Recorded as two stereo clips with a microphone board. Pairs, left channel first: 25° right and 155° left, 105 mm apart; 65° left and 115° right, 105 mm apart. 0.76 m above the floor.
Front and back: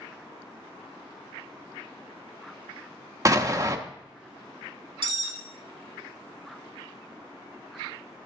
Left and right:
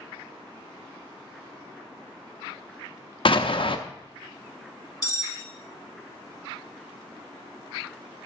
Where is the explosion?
100° left, 0.7 m.